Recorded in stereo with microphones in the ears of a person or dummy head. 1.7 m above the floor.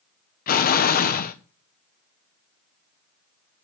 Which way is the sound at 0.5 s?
50° left (ahead or behind).